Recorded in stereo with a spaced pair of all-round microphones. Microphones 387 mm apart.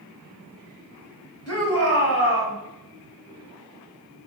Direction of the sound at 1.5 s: 35° left (ahead or behind).